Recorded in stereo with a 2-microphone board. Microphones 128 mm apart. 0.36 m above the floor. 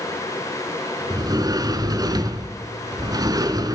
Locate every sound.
1.1 s a sliding door: 30° right (ahead or behind), 0.9 m